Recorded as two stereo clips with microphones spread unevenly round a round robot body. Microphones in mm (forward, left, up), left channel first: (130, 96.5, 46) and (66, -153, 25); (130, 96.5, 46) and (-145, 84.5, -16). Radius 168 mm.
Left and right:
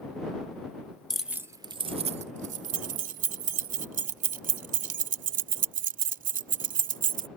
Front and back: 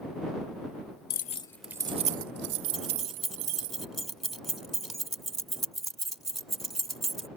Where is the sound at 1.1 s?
20° right; by 3.7 s 160° right.